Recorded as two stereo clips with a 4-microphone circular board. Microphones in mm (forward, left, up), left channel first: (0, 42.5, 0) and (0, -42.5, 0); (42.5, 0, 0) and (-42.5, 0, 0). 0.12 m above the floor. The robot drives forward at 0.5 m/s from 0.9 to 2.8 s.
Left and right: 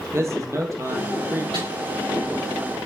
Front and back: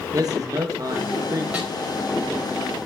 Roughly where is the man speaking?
Behind right.